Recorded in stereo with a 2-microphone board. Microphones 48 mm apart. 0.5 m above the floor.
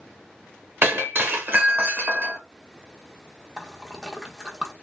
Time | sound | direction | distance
0.8 | breaking glass | 45° right (ahead or behind) | 0.8 m
3.6 | a splash | 15° right (ahead or behind) | 0.7 m